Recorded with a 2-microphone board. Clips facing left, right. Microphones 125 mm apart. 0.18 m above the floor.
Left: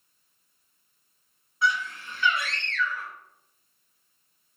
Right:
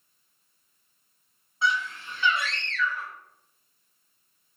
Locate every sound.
1.6 s a scream: 30° right (ahead or behind), 1.2 m